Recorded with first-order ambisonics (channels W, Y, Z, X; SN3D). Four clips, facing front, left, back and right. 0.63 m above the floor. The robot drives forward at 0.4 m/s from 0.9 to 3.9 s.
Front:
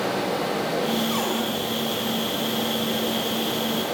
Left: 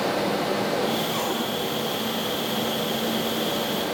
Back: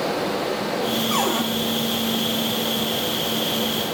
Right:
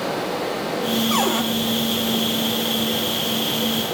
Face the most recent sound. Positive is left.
turn(degrees=-140)